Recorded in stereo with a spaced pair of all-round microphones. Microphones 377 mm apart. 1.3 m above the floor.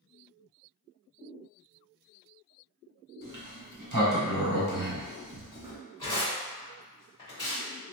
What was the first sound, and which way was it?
A sliding door, 60° right (ahead or behind).